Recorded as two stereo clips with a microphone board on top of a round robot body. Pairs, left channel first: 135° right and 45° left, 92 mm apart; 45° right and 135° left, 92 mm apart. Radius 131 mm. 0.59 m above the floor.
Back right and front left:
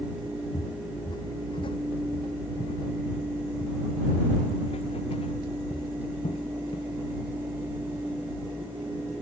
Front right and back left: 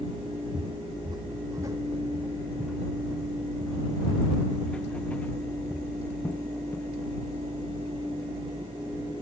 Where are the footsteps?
165° left; by 6.9 s 110° right.